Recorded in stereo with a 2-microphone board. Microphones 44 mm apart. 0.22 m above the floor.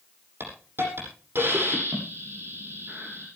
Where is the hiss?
60° right (ahead or behind), 9 m.